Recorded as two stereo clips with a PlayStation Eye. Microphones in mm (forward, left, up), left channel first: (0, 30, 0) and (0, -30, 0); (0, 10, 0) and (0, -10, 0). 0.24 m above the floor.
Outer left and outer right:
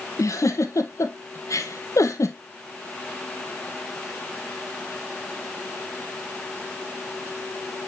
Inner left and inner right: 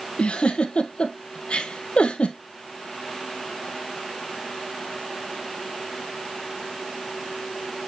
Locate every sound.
0.2 s a giggle: 60° left (ahead or behind), 1.8 m